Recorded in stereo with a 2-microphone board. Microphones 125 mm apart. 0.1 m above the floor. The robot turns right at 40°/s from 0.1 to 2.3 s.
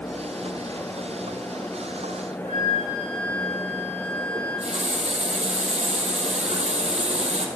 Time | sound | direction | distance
2.4 | a flute | 70° left (ahead or behind) | 8 m
4.3 | a running tap | 65° right (ahead or behind) | 2.5 m